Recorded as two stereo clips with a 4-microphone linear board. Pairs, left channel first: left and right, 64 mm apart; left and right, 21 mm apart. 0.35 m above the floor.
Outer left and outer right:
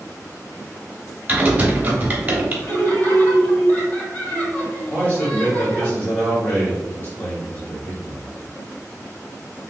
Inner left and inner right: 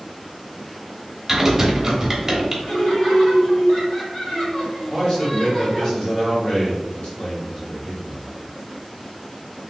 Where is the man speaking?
30° left (ahead or behind), 1.5 m.